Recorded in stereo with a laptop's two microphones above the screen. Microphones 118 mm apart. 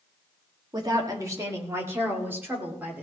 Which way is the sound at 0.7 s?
35° right (ahead or behind).